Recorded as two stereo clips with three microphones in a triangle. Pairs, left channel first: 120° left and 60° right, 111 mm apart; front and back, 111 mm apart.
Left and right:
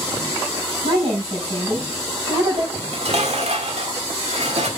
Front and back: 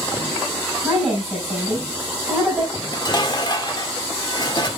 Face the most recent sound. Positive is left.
turn(degrees=-45)